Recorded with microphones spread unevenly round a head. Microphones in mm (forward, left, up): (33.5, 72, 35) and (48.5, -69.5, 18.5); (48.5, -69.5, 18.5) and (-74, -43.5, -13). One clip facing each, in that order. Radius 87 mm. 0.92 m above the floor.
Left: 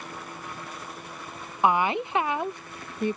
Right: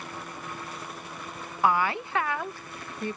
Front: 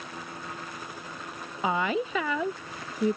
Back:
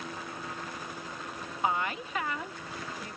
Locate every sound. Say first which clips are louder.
1.6 s a woman speaking: left 2 dB, front 4 dB; 20° left